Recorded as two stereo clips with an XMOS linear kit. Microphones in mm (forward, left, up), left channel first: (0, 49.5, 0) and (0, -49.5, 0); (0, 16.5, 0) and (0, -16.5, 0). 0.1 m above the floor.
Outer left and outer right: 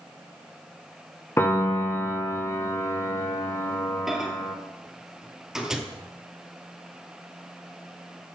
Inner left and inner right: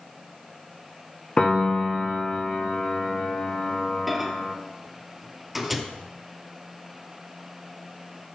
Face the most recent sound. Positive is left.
turn(degrees=-5)  # may be behind; listen again after turning